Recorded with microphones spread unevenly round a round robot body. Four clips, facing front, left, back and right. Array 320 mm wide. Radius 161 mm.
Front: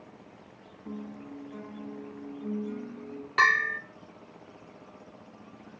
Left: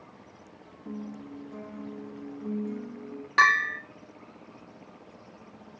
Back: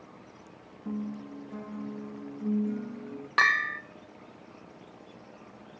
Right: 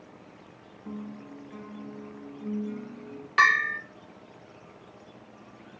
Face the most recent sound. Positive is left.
turn(degrees=155)